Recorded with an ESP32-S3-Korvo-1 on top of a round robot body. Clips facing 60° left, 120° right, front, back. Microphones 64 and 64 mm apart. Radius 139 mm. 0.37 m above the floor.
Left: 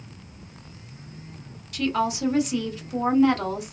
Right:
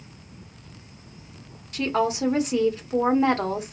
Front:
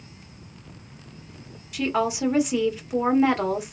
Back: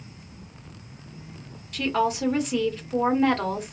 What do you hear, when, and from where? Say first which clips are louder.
1.7 s a woman speaking: right 1 dB, even; 75° right, 1.2 m